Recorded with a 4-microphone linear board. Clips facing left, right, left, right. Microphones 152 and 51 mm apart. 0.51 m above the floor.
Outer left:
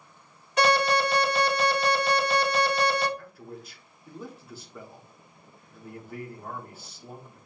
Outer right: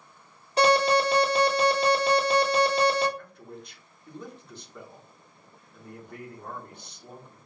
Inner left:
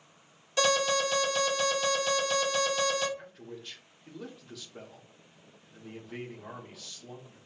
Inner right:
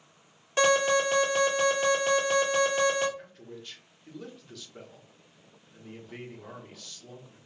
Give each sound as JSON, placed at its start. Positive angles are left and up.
{"t": 0.6, "sound": "an alarm", "side_deg": -35, "distance_m": 2.0}
{"t": 3.2, "sound": "a man speaking", "side_deg": 5, "distance_m": 1.1}